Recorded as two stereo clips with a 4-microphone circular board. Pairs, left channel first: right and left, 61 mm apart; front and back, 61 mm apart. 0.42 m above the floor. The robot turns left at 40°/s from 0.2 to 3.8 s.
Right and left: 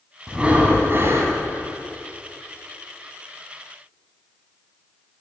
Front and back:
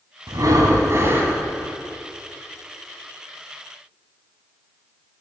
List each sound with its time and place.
0.3 s breathing: 170° left, 1.0 m; by 1.4 s 125° left, 1.0 m